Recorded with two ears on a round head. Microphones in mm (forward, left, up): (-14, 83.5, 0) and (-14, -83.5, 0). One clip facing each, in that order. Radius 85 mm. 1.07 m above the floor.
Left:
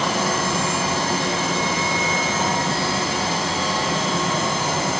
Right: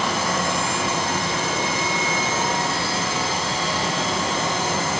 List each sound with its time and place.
Only background noise.